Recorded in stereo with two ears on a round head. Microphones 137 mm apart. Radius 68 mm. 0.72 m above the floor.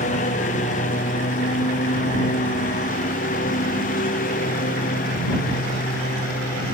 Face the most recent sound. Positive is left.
turn(degrees=60)  # may be behind; listen again after turning